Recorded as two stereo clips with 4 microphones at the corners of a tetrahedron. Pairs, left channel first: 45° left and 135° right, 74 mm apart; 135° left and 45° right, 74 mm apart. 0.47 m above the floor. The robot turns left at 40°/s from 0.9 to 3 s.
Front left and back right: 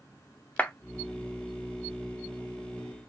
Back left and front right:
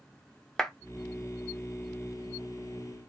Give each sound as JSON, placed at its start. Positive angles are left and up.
{"t": 0.6, "sound": "a clap", "azimuth_deg": 65, "distance_m": 0.7}